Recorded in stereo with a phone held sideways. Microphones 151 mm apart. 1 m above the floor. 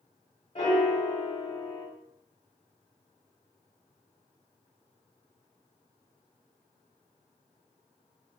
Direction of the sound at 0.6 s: 45° left (ahead or behind).